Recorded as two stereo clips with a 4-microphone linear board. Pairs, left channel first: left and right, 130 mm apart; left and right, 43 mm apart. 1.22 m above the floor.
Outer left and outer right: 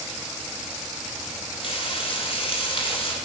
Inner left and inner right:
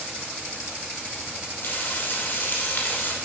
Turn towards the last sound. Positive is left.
turn(degrees=40)  # may be behind; listen again after turning